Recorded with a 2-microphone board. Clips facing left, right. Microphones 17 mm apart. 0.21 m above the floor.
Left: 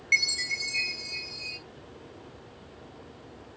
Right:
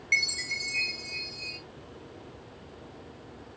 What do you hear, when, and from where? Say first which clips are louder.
0.1 s a chime: left 2 dB; centre (ahead or behind), 1.8 m